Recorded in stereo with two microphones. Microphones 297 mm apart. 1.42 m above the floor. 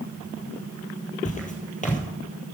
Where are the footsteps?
25° left (ahead or behind), 2.5 m.